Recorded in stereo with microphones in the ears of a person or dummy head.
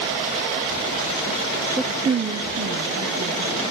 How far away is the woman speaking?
About 0.6 m.